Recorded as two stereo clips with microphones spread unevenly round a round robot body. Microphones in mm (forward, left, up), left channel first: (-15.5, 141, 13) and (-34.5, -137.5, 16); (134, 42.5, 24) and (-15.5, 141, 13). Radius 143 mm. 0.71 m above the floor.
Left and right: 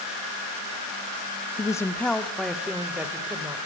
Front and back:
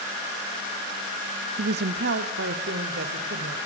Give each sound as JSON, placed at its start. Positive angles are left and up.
{"t": 1.6, "sound": "a woman speaking", "azimuth_deg": 160, "distance_m": 0.9}